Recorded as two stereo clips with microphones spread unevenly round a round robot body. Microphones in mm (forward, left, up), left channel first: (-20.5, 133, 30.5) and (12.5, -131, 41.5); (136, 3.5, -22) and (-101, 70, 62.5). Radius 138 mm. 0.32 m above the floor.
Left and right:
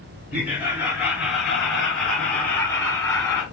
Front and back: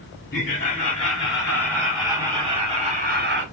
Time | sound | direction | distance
0.3 | laughter | straight ahead | 2.5 m